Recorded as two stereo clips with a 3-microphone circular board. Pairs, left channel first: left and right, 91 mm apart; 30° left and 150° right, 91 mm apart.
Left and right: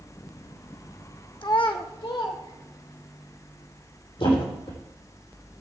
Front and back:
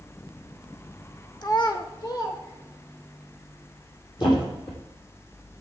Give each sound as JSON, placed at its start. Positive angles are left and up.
{"t": 1.4, "sound": "a child speaking", "azimuth_deg": 65, "distance_m": 0.5}
{"t": 4.2, "sound": "a thud", "azimuth_deg": 65, "distance_m": 3.5}